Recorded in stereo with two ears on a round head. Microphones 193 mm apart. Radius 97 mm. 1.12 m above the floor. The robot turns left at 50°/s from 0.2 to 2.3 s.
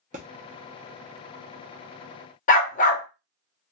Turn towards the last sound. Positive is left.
turn(degrees=40)  # may be behind; listen again after turning